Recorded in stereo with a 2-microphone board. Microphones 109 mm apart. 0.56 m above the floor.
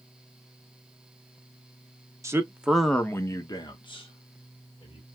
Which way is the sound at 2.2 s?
25° right (ahead or behind).